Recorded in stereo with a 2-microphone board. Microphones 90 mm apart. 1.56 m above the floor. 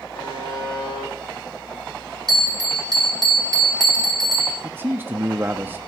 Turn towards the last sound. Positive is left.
turn(degrees=-25)  # may be behind; listen again after turning